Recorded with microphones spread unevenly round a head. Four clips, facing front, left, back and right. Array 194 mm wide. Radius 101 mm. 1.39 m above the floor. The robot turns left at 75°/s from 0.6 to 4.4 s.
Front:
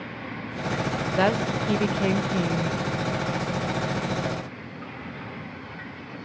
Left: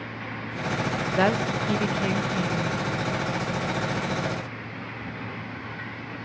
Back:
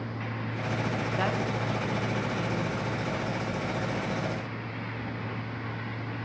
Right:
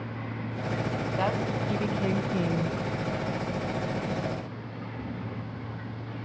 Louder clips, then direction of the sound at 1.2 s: Left 6 dB, front 9 dB; 65° left.